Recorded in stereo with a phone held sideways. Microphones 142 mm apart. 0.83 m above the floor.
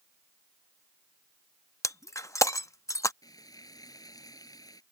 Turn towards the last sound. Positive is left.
turn(degrees=25)  # may be behind; listen again after turning